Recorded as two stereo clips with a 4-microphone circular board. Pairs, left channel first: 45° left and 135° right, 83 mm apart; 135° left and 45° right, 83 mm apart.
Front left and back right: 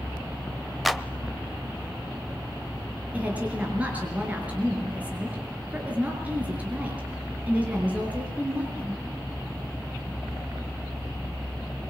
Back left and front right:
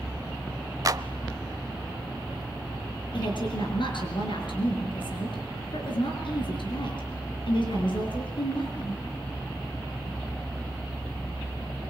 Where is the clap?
45° right, 0.9 m.